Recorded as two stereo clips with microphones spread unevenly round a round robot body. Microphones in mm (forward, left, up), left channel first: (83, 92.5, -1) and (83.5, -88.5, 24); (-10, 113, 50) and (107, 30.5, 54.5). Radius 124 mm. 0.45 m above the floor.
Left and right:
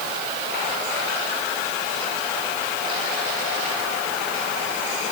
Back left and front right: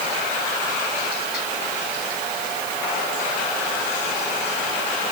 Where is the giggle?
No giggle in this recording.